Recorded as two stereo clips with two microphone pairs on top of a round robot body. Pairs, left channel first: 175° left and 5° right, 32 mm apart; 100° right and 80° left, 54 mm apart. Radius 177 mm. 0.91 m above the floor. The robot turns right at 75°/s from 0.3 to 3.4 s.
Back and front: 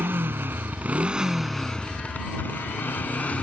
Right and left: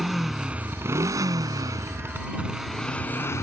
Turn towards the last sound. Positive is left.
turn(degrees=-135)